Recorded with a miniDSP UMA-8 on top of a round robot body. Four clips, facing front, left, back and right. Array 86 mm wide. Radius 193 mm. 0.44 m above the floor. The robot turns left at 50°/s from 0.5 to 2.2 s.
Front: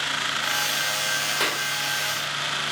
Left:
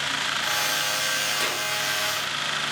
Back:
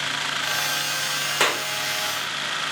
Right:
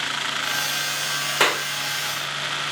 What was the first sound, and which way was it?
A clap, 110° right.